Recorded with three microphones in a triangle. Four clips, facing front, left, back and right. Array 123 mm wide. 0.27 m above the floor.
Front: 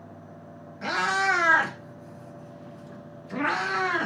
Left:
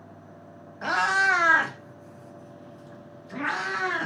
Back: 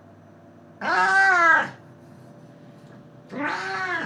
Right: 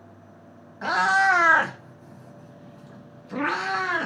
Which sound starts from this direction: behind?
A cat meowing, at 0.8 s.